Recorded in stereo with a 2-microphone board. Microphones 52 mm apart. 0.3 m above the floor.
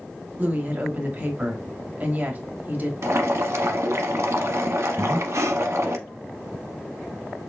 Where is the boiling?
65° right (ahead or behind), 0.8 m.